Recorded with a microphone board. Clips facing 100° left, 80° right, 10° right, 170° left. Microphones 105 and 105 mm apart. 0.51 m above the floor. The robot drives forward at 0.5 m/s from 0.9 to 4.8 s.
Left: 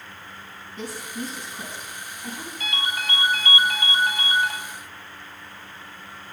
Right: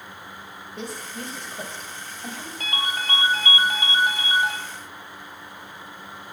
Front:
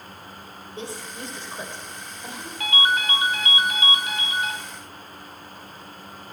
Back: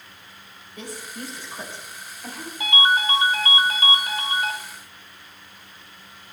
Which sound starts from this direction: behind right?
A ringtone, at 2.6 s.